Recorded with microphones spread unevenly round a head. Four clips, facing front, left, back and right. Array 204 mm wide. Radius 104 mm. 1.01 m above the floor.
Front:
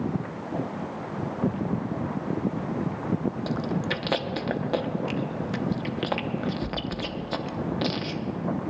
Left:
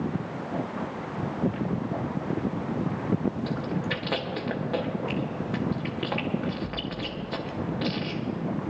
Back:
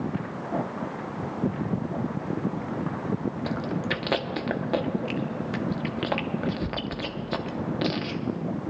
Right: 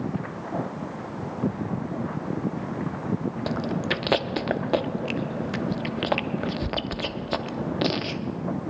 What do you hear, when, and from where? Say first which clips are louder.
3.5 s chewing: right 3 dB, front 1 dB; 100° right, 0.6 m